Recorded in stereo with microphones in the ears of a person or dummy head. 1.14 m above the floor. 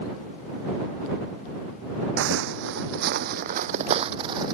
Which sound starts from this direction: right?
Footsteps, at 2.2 s.